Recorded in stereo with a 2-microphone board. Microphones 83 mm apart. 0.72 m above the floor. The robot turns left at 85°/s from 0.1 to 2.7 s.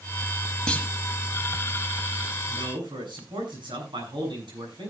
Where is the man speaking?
80° right, 7.5 m; by 4.9 s 75° right (ahead or behind), 7.5 m.